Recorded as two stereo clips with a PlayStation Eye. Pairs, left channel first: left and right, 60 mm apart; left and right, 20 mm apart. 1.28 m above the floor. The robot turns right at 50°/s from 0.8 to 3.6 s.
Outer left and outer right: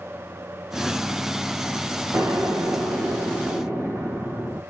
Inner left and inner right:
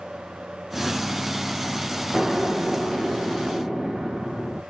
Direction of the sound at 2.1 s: 115° right.